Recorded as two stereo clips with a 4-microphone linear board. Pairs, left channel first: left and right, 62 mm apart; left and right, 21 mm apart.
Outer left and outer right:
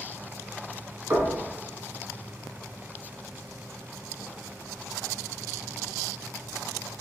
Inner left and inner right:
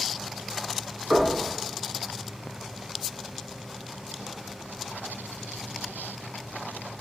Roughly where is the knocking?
Right.